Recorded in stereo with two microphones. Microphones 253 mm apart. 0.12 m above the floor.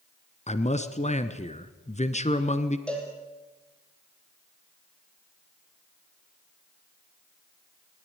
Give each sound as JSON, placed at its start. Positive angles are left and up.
{"t": 0.5, "sound": "a man speaking", "side_deg": 25, "distance_m": 1.1}
{"t": 2.9, "sound": "a cowbell", "side_deg": 5, "distance_m": 4.0}